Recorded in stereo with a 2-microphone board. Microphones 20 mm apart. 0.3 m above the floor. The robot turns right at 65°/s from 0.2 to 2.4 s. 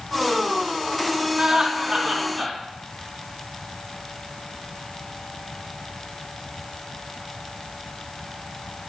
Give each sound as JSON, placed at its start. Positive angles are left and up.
{"t": 1.4, "sound": "laughter", "azimuth_deg": -35, "distance_m": 2.5}